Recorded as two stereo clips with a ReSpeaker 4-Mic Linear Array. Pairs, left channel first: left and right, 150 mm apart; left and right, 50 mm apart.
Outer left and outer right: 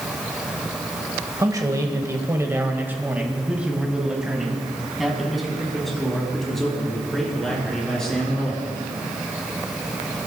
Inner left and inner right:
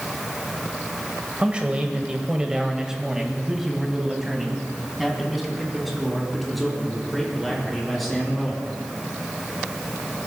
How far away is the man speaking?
About 1.2 m.